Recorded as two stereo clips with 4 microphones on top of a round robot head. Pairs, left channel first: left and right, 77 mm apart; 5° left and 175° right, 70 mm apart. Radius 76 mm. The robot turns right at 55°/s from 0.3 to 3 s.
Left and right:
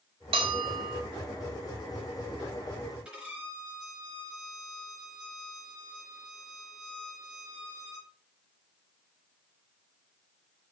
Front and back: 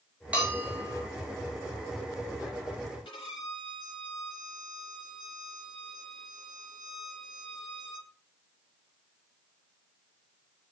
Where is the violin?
10° right, 3.5 m.